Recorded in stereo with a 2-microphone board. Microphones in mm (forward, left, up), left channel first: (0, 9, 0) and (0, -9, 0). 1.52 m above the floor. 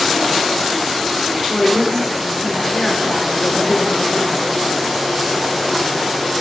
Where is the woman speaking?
20° left (ahead or behind), 4.5 m.